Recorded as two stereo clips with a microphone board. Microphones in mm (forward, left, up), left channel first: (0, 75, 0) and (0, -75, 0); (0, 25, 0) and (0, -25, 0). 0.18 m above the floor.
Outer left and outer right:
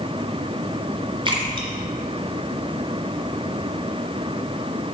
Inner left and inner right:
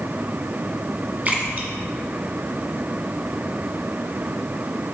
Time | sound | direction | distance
1.2 | a splash | 35° right (ahead or behind) | 1.6 m